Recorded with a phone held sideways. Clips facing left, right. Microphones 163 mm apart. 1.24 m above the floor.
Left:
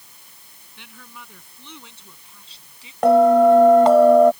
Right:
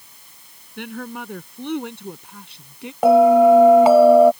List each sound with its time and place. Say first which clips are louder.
0.8 s a woman speaking: right 15 dB; 60° right (ahead or behind); by 2.9 s 65° right (ahead or behind)
3.0 s a bell: right 1 dB; 5° right (ahead or behind)